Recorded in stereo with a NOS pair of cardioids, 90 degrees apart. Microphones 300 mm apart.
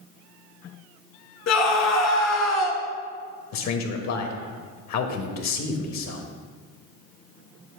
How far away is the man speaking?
About 1.1 m.